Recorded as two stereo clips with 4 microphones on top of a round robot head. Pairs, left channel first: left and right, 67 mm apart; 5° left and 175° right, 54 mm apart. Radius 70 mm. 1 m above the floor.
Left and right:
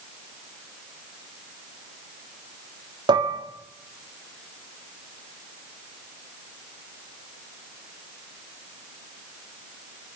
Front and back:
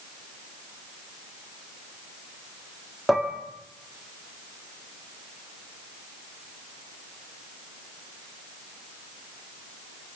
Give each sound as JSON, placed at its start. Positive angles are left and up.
{"t": 3.1, "sound": "dishes clattering", "azimuth_deg": -85, "distance_m": 1.4}